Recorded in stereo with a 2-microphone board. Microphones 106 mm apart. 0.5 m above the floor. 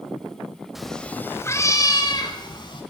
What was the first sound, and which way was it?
A cat meowing, centre (ahead or behind).